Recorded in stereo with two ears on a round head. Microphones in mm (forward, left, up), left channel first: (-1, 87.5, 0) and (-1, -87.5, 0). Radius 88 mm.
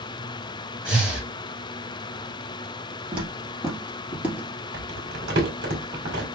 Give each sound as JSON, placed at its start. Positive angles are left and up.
{"t": 0.8, "sound": "breathing", "side_deg": -5, "distance_m": 1.0}
{"t": 3.1, "sound": "footsteps", "side_deg": -25, "distance_m": 2.0}
{"t": 4.7, "sound": "crumpling", "side_deg": -65, "distance_m": 2.0}